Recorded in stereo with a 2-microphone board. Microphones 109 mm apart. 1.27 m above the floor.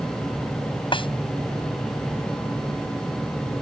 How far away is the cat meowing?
No cat meowing in this recording.